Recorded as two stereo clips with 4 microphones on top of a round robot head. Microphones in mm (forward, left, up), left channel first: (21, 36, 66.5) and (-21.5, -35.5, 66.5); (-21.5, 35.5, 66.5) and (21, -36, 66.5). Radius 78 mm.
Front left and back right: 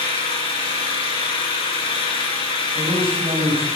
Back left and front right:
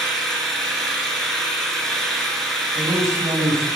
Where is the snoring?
I don't hear snoring.